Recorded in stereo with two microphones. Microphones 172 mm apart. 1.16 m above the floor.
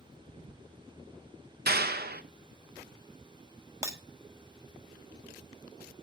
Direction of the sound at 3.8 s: 20° right (ahead or behind).